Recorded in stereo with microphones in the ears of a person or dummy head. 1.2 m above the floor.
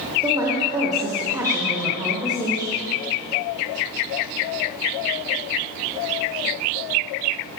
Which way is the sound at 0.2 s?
15° right (ahead or behind).